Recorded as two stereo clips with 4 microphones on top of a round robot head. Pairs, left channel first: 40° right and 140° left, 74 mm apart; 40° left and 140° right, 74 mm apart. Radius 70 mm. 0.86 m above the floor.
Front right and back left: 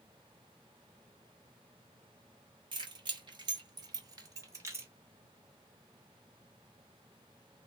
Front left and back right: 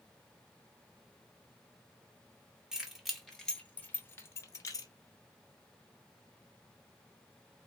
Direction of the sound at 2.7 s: 140° left.